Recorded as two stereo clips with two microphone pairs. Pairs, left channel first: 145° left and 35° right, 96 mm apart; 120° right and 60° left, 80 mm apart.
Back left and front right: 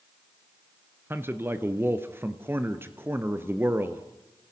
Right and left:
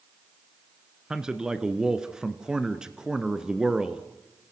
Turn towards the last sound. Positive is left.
turn(degrees=-10)